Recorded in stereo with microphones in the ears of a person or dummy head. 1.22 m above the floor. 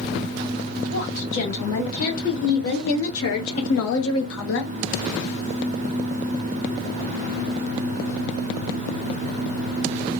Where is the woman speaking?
75° left (ahead or behind), 2.5 m; by 4.7 s 60° left (ahead or behind), 0.5 m.